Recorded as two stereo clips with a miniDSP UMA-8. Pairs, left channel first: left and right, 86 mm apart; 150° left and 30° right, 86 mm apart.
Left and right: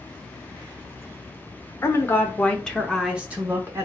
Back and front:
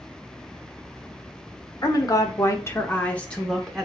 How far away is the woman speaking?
About 1.2 m.